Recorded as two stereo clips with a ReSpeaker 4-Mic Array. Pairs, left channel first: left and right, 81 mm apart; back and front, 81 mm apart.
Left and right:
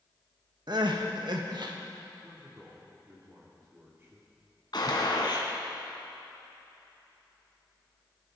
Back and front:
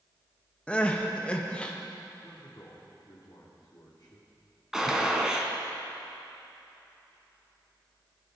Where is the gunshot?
85° left, 2 m.